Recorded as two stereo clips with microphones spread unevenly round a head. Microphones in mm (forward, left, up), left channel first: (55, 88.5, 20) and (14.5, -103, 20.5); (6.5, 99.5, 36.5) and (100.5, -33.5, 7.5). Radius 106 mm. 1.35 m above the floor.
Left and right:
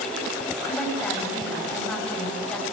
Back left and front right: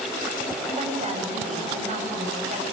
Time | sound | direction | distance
0.7 | a woman speaking | 5° right | 9 m